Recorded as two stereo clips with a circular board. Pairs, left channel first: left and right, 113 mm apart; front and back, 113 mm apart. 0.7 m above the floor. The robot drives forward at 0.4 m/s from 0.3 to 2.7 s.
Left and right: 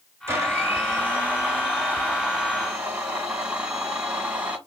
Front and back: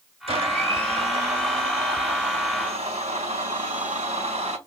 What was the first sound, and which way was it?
A blender, 155° right.